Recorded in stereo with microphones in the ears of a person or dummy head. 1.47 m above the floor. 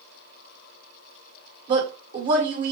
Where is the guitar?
I don't hear a guitar.